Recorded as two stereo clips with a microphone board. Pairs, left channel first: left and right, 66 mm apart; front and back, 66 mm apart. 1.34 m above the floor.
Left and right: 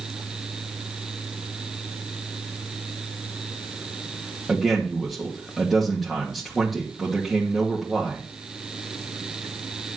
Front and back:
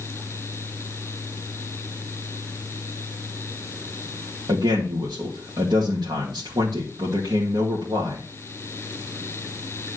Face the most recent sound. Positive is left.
turn(degrees=180)